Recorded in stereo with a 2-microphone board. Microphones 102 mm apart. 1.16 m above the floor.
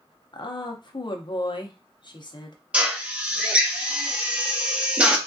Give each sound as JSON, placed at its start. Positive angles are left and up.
{"t": 0.3, "sound": "a woman speaking", "side_deg": 45, "distance_m": 0.7}
{"t": 2.7, "sound": "a drill", "side_deg": -10, "distance_m": 0.6}